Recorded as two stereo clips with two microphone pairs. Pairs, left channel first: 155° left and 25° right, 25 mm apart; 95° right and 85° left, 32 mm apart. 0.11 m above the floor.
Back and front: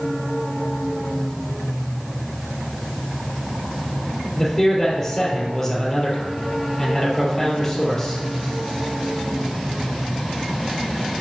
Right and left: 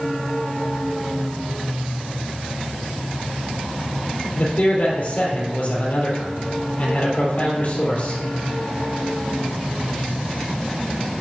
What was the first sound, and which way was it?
A man speaking, 125° right.